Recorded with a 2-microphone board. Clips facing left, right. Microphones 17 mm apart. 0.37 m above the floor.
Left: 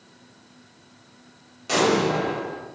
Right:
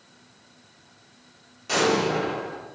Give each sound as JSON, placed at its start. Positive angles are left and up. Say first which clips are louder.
{"t": 1.7, "sound": "an explosion", "louder": "left 2 dB", "side_deg": 10, "distance_m": 1.1}